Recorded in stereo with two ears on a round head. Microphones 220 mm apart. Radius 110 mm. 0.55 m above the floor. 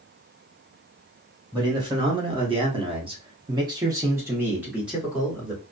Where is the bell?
I don't hear a bell.